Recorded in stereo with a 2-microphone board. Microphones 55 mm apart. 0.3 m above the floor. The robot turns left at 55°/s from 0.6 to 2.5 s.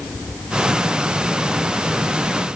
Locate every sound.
Only background noise.